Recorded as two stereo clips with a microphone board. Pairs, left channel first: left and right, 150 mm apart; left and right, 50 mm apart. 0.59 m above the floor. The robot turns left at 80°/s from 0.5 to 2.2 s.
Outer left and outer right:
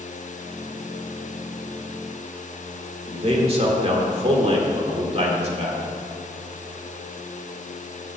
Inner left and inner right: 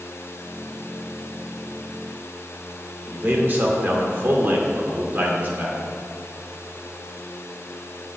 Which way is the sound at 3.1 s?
40° right (ahead or behind).